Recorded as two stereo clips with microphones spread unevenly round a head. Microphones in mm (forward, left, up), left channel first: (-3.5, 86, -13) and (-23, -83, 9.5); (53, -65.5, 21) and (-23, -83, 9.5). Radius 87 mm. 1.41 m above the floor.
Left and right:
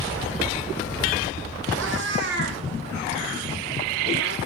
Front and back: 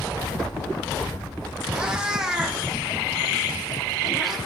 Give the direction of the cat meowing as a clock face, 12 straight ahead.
3 o'clock.